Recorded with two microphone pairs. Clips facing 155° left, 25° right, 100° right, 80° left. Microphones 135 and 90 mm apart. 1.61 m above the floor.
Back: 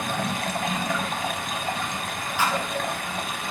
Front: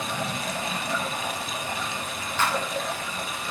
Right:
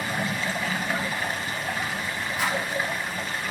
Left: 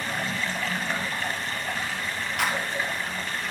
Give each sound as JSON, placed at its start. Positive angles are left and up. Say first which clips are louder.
{"t": 0.0, "sound": "running water", "louder": "back 3 dB, right 2 dB", "azimuth_deg": 180, "distance_m": 0.7}
{"t": 2.4, "sound": "a clap", "louder": "back 1 dB, even", "azimuth_deg": 75, "distance_m": 0.9}